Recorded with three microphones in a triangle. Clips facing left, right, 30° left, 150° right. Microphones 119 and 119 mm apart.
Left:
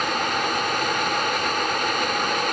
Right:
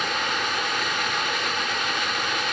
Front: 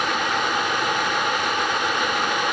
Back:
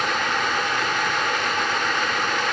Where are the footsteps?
No footsteps in this recording.